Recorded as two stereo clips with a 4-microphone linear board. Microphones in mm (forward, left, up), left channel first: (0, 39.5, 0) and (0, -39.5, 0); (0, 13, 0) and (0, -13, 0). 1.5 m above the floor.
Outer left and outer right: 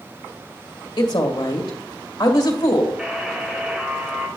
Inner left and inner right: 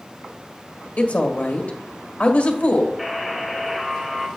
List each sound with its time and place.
1.0 s a woman speaking: 75° left (ahead or behind), 1.7 m
3.0 s a buzzer: 10° right (ahead or behind), 2 m